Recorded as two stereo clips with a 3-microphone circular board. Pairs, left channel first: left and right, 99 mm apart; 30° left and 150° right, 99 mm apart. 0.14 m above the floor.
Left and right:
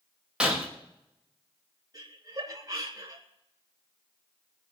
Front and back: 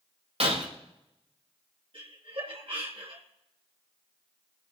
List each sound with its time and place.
0.4 s breaking glass: 175° right, 4 m
1.9 s laughter: 140° right, 3 m